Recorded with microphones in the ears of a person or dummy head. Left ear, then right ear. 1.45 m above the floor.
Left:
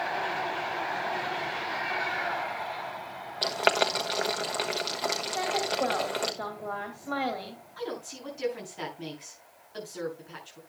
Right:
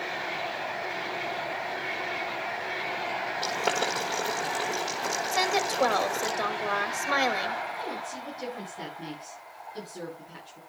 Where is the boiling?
25° left (ahead or behind), 1.2 m.